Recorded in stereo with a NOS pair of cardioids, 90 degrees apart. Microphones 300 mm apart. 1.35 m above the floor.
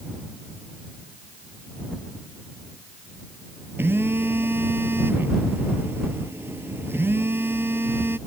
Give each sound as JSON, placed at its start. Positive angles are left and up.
{"t": 3.8, "sound": "a phone buzzing", "azimuth_deg": -5}